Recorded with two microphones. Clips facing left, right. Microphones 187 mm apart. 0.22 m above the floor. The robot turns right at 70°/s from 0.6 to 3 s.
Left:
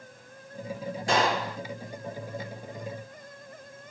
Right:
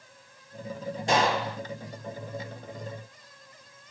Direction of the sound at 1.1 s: 25° right (ahead or behind).